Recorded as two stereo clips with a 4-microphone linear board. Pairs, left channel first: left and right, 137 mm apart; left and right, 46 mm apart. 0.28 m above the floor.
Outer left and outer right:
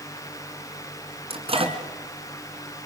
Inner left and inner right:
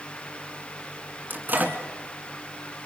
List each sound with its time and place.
1.3 s a microwave: 40° right (ahead or behind), 2.5 m